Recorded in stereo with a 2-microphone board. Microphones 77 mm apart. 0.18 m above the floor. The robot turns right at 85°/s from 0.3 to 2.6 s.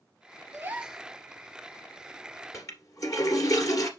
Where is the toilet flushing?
40° left (ahead or behind), 1.9 m; by 3.9 s 45° left (ahead or behind), 1.9 m.